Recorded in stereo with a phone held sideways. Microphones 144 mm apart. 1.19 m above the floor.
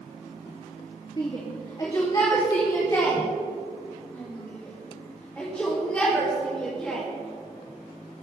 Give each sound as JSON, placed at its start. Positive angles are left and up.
{"t": 1.2, "sound": "a shout", "side_deg": 35, "distance_m": 2.5}